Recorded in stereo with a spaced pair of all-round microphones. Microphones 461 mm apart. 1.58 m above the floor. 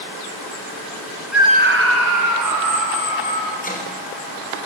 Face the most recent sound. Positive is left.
turn(degrees=15)  # may be behind; listen again after turning